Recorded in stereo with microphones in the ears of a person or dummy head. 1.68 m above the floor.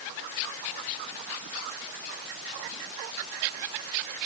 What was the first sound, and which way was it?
Only background noise.